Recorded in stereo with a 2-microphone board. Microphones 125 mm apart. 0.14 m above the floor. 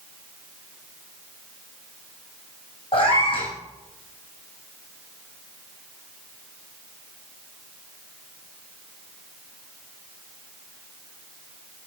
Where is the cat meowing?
45° left (ahead or behind), 4 m.